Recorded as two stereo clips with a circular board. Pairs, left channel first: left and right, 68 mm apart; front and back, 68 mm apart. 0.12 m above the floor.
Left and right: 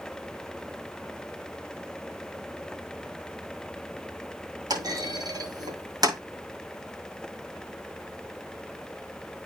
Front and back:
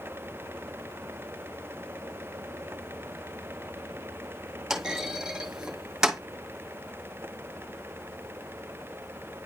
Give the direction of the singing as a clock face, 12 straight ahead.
No singing in this recording.